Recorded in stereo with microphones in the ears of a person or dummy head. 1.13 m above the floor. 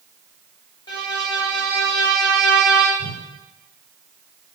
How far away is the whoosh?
About 5 m.